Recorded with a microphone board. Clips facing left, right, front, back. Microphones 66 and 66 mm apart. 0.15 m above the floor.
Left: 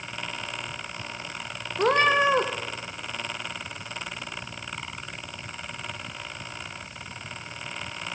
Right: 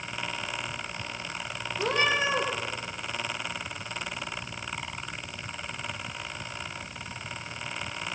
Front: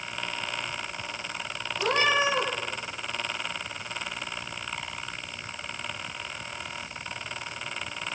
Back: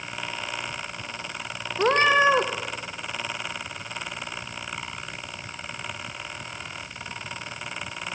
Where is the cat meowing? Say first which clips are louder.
Left 6 dB, back 6 dB; 130° left, 3.5 m.